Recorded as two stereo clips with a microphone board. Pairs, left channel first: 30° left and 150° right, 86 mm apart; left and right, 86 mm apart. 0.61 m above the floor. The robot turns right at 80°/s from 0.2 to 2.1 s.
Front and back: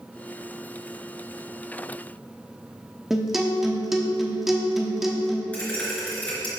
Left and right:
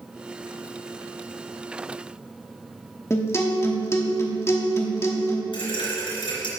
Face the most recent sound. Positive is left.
turn(degrees=105)